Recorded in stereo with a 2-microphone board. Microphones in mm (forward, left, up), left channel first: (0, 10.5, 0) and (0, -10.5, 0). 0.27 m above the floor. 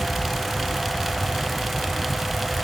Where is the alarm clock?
No alarm clock in this recording.